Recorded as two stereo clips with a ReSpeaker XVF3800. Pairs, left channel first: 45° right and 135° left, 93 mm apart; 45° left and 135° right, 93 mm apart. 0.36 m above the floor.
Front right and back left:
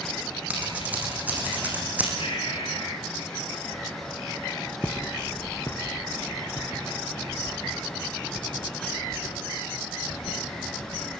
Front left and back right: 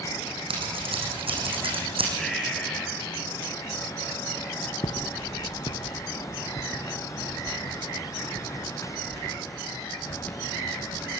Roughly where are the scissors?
Behind right.